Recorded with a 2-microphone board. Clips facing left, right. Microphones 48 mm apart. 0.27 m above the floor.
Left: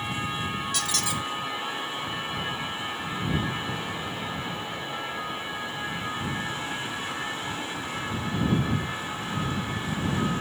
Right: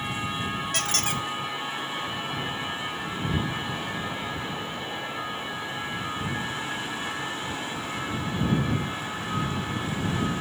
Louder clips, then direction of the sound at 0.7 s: Right 1 dB; 45° right (ahead or behind).